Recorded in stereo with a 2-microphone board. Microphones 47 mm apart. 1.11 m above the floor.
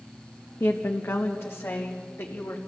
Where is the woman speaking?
65° left (ahead or behind), 1.0 m.